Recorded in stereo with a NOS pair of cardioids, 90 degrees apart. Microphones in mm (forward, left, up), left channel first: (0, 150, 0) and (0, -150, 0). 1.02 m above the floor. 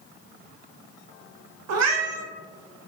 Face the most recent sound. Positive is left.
turn(degrees=-60)